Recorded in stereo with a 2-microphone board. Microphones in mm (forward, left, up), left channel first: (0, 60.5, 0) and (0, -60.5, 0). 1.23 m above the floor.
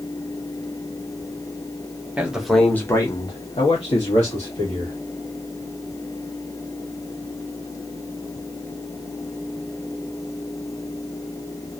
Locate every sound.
2.2 s a man speaking: 15° right (ahead or behind), 0.8 m; by 4.9 s 60° left (ahead or behind), 1.5 m